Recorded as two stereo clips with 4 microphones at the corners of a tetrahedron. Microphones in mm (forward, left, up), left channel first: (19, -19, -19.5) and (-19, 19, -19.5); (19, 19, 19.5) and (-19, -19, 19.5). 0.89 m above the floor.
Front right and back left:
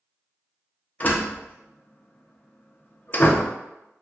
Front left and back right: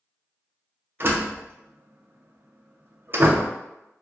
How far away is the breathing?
I don't hear breathing.